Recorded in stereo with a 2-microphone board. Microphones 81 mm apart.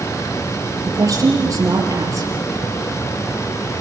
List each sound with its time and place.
0.8 s a woman speaking: 45° right (ahead or behind), 6 m